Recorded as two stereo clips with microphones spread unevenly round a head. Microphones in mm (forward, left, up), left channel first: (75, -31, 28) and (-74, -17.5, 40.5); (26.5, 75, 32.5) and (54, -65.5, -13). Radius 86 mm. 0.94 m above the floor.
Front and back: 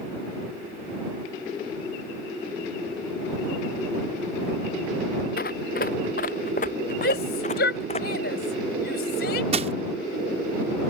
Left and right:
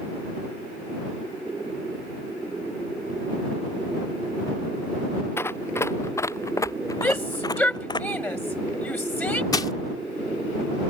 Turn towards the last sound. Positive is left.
turn(degrees=135)